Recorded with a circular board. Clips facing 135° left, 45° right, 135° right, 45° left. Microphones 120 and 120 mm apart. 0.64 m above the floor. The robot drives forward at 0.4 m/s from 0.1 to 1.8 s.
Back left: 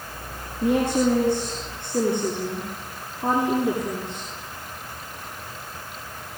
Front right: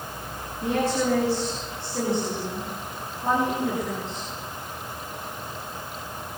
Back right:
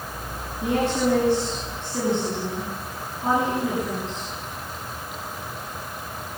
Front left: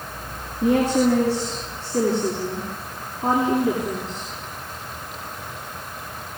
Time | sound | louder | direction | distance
0.6 | a woman speaking | back left 4 dB, front left 4 dB | 95° left | 8 m